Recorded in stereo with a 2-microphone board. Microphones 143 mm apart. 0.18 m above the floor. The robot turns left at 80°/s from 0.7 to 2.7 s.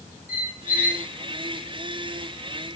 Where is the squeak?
80° left, 0.7 m; by 1.1 s 65° left (ahead or behind), 0.7 m.